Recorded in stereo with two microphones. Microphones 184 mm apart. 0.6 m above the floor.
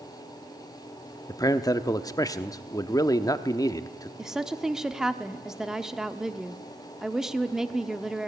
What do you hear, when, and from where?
1.3 s a man speaking: 20° left (ahead or behind), 0.9 m
4.2 s a woman speaking: centre (ahead or behind), 1.0 m